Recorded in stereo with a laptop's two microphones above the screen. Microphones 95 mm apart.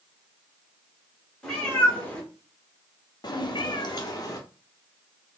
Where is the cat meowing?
5° left (ahead or behind), 1.2 m; by 4.4 s 40° left (ahead or behind), 0.8 m.